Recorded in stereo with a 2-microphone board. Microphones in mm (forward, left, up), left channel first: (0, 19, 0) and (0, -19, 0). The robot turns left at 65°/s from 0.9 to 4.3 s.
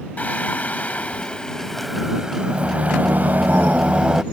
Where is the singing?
65° left; by 4.2 s 155° right.